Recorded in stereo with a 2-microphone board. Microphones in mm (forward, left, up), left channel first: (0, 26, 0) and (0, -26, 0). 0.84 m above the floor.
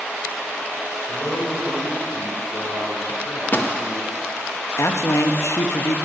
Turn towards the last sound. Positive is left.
turn(degrees=60)  # may be behind; listen again after turning